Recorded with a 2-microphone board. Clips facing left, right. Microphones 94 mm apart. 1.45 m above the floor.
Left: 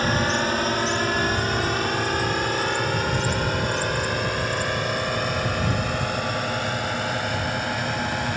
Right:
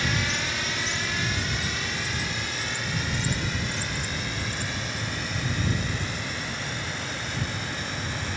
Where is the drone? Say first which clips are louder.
Left 7 dB; 45° left (ahead or behind); by 8.4 s 60° left (ahead or behind).